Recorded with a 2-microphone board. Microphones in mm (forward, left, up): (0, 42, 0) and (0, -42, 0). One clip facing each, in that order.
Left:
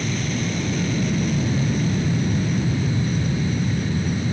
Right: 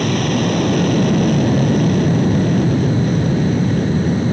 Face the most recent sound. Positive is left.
turn(degrees=-60)  # may be behind; listen again after turning